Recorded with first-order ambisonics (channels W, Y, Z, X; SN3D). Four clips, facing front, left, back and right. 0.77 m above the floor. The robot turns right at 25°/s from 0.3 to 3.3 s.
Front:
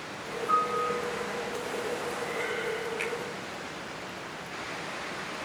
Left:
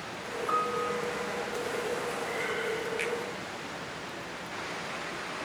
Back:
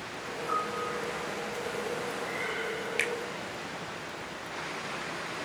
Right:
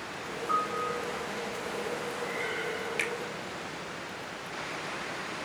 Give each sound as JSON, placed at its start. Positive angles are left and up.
{"t": 0.5, "sound": "a piano", "azimuth_deg": 80, "distance_m": 4.0}
{"t": 3.0, "sound": "a finger snap", "azimuth_deg": -165, "distance_m": 3.0}